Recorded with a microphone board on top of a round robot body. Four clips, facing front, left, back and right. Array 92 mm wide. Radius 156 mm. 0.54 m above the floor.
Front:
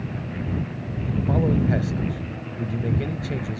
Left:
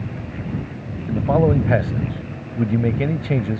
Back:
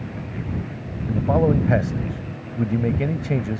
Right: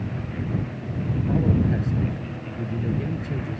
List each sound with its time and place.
1.1 s a man speaking: 120° left